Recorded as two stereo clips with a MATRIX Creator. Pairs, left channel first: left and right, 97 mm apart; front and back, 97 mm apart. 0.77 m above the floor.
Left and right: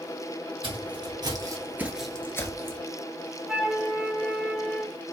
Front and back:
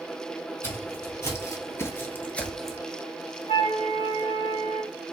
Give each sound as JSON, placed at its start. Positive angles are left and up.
{"t": 0.6, "sound": "footsteps", "azimuth_deg": -60, "distance_m": 1.7}
{"t": 3.5, "sound": "a flute", "azimuth_deg": -10, "distance_m": 1.9}